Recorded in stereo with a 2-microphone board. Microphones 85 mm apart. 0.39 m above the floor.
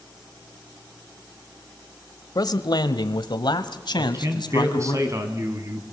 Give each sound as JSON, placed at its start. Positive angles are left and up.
{"t": 2.4, "sound": "a man speaking", "side_deg": 50, "distance_m": 1.4}
{"t": 4.0, "sound": "a man speaking", "side_deg": -35, "distance_m": 3.0}